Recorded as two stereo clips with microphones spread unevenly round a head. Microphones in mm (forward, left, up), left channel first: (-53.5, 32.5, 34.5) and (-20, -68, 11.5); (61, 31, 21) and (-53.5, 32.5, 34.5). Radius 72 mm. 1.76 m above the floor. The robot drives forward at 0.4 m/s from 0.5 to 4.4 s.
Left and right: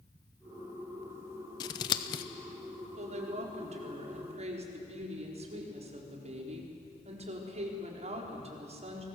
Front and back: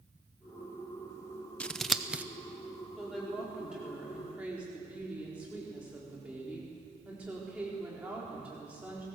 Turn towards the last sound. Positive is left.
turn(degrees=-100)